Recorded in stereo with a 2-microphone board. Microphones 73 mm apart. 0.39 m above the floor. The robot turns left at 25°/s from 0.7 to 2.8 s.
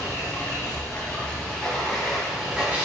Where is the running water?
35° left, 1.2 m; by 2.9 s 15° right, 1.2 m.